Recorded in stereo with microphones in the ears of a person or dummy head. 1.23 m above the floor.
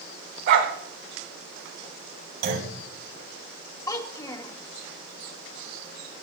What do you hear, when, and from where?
0.5 s a dog barking: 60° right (ahead or behind), 3 m
2.4 s a clunk: 65° right (ahead or behind), 7.5 m
3.9 s a child speaking: 20° left (ahead or behind), 1.5 m